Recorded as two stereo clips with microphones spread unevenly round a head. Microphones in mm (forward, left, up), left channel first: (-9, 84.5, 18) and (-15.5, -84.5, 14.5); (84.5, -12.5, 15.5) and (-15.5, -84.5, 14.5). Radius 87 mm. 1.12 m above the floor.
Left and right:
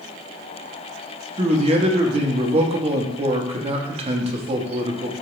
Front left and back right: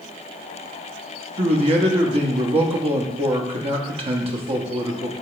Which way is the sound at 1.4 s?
135° right.